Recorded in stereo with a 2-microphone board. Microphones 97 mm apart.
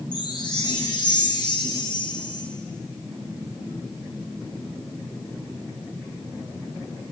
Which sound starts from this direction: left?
A chime, at 0.1 s.